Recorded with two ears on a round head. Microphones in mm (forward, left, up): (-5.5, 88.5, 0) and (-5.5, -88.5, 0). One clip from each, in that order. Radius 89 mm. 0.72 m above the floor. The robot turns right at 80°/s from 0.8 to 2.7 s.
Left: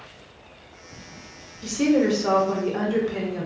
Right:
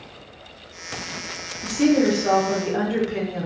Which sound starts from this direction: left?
A woman speaking, at 1.6 s.